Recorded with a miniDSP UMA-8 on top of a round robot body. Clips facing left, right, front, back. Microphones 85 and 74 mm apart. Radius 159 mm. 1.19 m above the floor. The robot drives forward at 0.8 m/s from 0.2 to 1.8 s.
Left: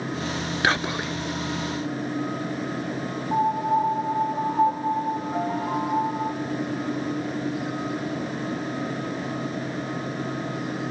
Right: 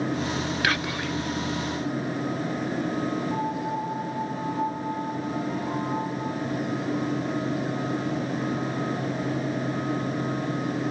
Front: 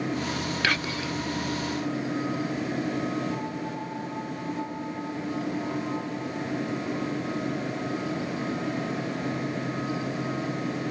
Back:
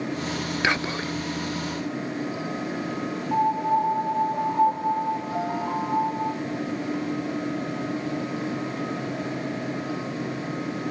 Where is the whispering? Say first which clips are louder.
Left 6 dB, back 4 dB; 125° left, 0.7 m; by 1.1 s 155° left, 0.9 m.